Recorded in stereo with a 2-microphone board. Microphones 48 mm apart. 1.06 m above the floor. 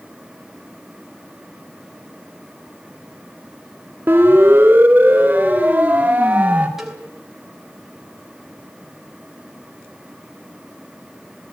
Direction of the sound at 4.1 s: 50° right (ahead or behind).